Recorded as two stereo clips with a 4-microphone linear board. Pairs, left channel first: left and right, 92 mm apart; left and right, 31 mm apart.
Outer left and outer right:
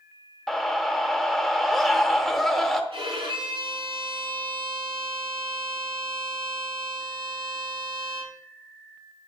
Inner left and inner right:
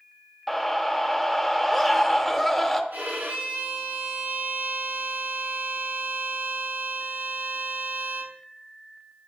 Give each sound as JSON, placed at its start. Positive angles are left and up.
{"t": 0.5, "sound": "a scream", "side_deg": 5, "distance_m": 0.8}
{"t": 2.9, "sound": "a violin", "side_deg": -75, "distance_m": 2.0}